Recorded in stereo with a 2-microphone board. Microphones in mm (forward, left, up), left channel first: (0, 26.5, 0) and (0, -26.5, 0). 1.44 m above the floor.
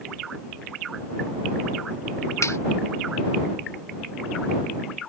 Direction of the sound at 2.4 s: 85° left.